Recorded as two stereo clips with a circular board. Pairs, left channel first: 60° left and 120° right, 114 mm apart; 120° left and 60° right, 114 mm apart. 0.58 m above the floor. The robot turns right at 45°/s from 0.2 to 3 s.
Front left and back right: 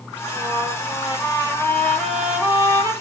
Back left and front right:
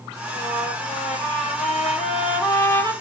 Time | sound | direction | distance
0.3 | a trumpet | 70° left | 6.5 m